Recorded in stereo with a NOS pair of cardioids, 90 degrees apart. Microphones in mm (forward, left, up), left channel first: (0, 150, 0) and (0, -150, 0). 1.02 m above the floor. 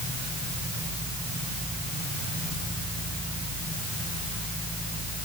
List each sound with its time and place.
Only background noise.